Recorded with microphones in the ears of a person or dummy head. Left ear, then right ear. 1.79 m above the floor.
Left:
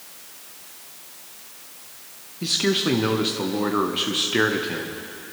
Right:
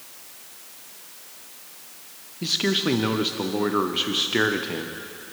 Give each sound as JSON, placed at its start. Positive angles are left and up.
{"t": 2.4, "sound": "a man speaking", "side_deg": -10, "distance_m": 0.6}